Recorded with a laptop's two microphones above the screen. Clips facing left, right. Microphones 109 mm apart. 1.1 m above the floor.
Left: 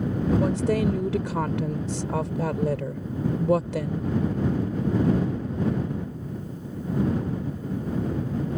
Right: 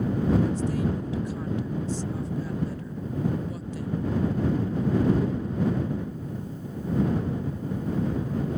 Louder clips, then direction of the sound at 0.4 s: Left 3 dB; 80° left.